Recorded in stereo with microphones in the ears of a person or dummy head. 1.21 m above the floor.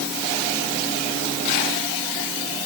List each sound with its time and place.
Only background noise.